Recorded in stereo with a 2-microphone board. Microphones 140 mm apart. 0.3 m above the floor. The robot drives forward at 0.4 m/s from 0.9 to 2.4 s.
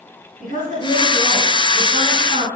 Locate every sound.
0.4 s a woman speaking: 65° right (ahead or behind), 3.5 m